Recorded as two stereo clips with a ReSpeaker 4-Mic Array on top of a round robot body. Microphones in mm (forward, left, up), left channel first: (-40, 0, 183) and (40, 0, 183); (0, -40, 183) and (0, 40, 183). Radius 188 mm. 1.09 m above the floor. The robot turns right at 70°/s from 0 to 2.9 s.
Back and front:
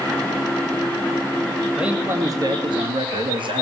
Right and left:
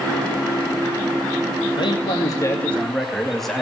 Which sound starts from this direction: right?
A man speaking, at 1.8 s.